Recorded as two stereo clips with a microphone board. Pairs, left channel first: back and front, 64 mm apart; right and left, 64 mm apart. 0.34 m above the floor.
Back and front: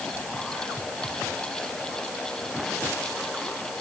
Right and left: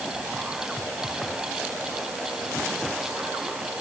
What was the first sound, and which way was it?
Only background noise.